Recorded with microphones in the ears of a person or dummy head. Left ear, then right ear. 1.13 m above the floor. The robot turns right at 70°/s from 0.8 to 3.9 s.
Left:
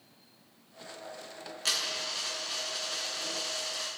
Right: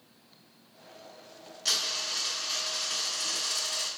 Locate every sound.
1.6 s a dropped coin: 135° left, 0.9 m; by 3.9 s 65° right, 0.9 m